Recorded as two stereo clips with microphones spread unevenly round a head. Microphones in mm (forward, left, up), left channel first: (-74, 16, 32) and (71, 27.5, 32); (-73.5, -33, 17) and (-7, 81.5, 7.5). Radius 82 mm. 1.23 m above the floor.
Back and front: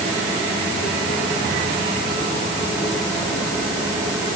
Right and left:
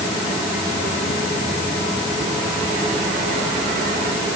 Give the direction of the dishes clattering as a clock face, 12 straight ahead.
No dishes clattering in this recording.